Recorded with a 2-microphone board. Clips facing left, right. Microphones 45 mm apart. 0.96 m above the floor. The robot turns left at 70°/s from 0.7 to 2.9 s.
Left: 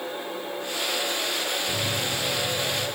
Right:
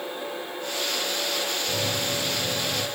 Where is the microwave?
10° right, 7 m; by 2.9 s 95° right, 7 m.